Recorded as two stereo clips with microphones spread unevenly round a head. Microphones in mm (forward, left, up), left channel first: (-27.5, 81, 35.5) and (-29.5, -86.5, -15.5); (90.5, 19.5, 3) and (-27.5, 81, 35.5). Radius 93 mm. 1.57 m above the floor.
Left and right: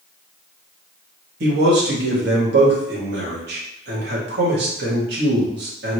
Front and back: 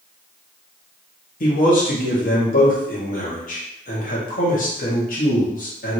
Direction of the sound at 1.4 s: 60° right.